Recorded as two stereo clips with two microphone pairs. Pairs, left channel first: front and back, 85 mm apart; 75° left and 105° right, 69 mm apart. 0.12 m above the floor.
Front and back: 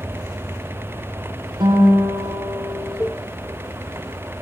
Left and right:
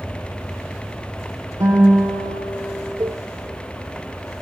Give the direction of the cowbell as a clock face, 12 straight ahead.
2 o'clock.